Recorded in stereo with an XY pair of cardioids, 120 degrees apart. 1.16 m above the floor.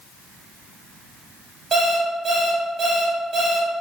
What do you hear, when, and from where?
1.7 s an alarm clock: 25° right, 1.3 m